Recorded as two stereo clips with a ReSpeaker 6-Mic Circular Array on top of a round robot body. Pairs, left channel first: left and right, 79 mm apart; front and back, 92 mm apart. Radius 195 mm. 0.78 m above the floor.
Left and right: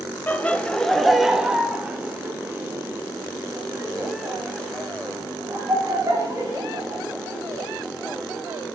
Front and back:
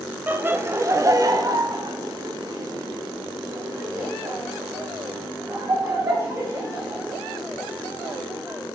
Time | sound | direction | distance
0.3 | laughter | 130° left | 1.1 m